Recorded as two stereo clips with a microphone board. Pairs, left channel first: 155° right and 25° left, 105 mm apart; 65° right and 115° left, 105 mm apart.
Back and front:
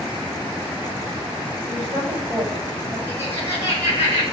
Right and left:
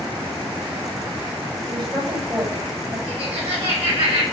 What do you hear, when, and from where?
1.7 s a woman speaking: 70° left, 5.5 m
3.1 s laughter: 140° left, 4 m